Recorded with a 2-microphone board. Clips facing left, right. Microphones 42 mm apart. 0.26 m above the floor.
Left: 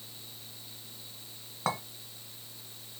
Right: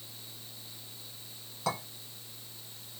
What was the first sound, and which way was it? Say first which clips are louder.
A clink: left 1 dB; 40° left (ahead or behind).